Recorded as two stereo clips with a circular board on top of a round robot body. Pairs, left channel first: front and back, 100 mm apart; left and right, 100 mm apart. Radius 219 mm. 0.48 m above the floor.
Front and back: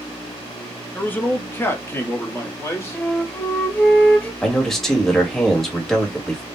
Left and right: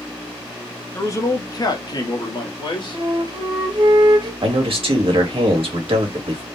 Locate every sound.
0.9 s a man speaking: 60° left, 1.1 m
2.9 s a flute: 70° right, 1.9 m
4.4 s a man speaking: 85° right, 1.5 m